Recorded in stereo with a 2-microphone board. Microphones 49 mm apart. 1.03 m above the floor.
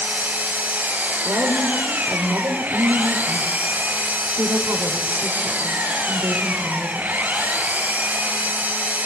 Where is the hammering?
I don't hear hammering.